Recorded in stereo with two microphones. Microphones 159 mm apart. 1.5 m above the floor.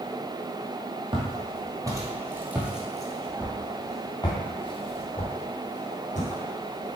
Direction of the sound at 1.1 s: 35° right (ahead or behind).